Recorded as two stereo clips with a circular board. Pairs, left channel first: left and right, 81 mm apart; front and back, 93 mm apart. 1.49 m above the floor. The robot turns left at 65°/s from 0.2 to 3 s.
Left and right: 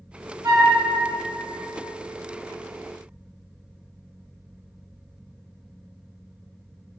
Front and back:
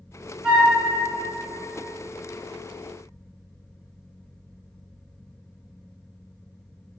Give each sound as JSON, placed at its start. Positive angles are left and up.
{"t": 0.4, "sound": "a flute", "azimuth_deg": -100, "distance_m": 1.0}